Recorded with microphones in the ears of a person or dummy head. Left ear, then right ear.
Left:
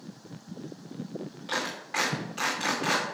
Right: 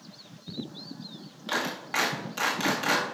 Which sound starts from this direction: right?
A clap, at 1.5 s.